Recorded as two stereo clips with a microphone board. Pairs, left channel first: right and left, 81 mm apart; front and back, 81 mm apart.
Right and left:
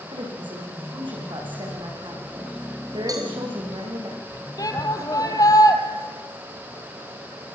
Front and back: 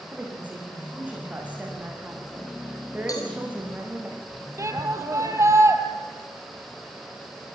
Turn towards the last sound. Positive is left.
turn(degrees=-130)